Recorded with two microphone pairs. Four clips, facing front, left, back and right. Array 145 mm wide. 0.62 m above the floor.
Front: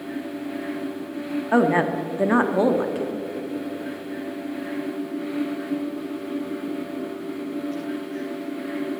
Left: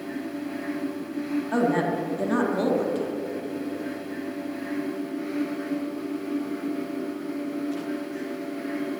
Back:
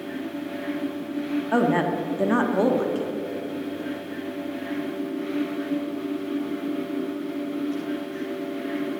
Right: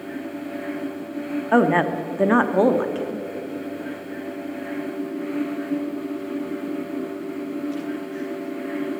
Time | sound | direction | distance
1.5 | a woman speaking | 80° right | 0.9 m